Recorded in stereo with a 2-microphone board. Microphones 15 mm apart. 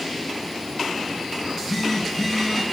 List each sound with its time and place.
1.4 s a phone buzzing: 10° right (ahead or behind), 7 m